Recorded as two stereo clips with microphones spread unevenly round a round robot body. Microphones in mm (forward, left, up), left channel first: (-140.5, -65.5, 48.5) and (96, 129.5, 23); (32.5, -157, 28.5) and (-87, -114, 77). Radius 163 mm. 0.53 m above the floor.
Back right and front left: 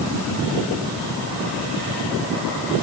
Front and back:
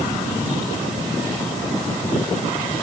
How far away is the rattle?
I don't hear a rattle.